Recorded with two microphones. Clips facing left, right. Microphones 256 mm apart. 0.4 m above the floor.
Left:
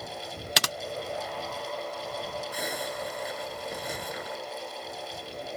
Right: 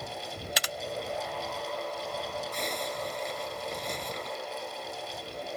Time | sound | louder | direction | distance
0.6 | typing on a keyboard | left 6 dB | 85° left | ?
2.5 | a zipper | even | 5° left (ahead or behind) | ?